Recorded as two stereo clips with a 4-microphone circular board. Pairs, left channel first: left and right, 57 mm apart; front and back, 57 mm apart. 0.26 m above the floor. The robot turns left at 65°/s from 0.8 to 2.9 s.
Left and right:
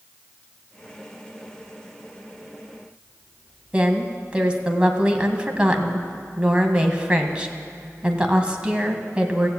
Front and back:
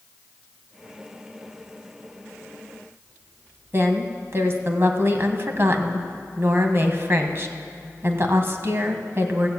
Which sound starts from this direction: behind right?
A woman speaking, at 3.7 s.